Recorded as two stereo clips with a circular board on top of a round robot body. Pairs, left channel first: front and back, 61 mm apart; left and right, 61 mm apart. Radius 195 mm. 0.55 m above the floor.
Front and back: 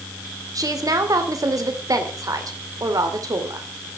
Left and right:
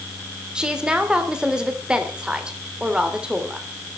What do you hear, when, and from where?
0.6 s a woman speaking: 165° right, 3 m